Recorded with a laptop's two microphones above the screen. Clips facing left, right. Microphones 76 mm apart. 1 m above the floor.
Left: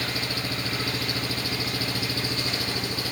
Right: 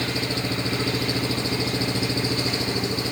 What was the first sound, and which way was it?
An engine running, 25° right (ahead or behind).